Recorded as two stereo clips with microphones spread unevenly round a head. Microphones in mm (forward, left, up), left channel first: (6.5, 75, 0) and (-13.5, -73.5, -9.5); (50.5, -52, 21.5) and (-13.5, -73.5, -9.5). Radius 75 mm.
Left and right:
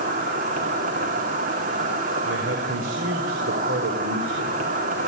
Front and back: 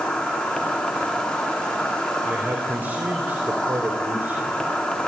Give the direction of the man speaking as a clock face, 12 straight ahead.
3 o'clock.